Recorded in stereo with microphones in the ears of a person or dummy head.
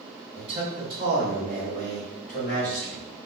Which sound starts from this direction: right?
A man speaking, at 0.3 s.